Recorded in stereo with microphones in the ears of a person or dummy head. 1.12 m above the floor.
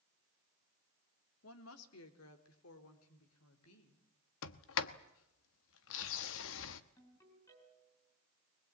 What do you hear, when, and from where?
1.4 s a woman speaking: 80° left, 2.5 m; by 4.0 s 85° left, 4.5 m
4.4 s a sliding door: 75° left (ahead or behind), 1.2 m
7.0 s a ringtone: 15° left (ahead or behind), 5.5 m